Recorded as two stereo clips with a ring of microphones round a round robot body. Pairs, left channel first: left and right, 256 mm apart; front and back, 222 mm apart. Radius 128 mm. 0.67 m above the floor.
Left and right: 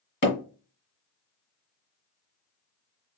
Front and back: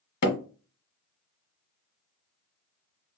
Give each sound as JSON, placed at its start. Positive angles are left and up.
{"t": 0.2, "sound": "hammering", "azimuth_deg": 35, "distance_m": 1.6}